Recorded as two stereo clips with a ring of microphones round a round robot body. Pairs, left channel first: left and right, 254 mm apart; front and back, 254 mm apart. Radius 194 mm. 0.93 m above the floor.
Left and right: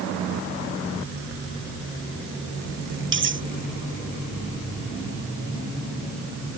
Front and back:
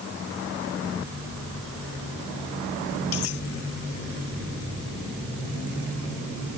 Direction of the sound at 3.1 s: 50° right.